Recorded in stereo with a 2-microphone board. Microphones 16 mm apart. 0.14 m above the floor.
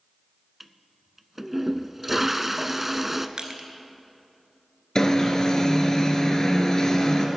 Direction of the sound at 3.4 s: 50° right (ahead or behind).